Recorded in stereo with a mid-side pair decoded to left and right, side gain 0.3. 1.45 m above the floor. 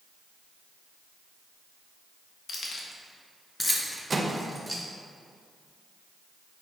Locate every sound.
2.5 s keys jangling: 70° left, 1.5 m; by 4.8 s 5° left, 2.5 m
4.1 s a microwave: 30° right, 1.2 m